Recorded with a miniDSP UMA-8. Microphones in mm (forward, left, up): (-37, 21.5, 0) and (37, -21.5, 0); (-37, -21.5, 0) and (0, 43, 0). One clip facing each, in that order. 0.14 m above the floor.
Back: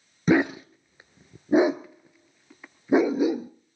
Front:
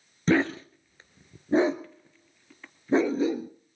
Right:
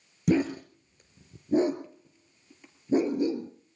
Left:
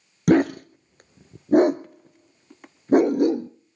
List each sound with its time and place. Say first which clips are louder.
0.3 s a dog barking: back 2 dB, left 7 dB; 75° left, 0.6 m